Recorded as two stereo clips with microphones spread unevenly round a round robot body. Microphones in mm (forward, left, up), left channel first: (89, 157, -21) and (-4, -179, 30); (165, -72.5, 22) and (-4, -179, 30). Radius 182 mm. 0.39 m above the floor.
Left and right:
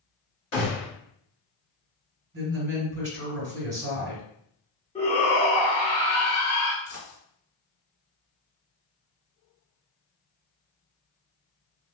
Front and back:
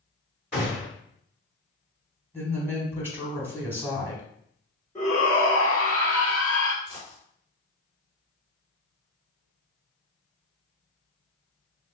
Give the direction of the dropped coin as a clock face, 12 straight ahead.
8 o'clock.